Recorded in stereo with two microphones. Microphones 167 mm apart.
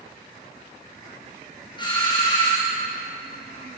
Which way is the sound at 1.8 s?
30° left (ahead or behind).